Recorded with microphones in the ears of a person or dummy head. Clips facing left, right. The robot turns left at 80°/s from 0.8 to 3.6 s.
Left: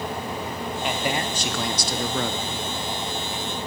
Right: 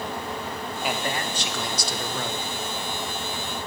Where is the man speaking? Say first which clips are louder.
Left 2 dB; 175° right, 0.9 m; by 2.5 s 55° left, 0.9 m.